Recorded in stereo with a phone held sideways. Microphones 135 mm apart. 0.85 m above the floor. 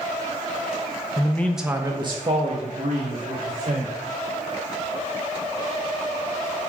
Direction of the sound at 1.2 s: 30° left (ahead or behind).